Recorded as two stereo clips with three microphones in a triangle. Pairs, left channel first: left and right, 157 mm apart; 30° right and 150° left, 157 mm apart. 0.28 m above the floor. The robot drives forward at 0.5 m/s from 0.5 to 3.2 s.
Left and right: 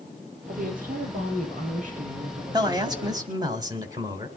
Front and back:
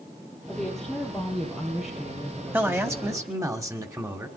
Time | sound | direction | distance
0.5 | a woman speaking | 115° right | 7 m
2.5 | a man speaking | 140° right | 1.9 m